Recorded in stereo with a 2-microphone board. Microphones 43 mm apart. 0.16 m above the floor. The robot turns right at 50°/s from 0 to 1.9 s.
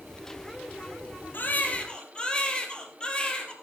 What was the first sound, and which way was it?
A baby crying, 50° left (ahead or behind).